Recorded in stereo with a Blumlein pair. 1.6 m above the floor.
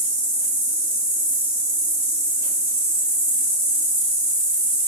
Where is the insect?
65° right, 1.4 m.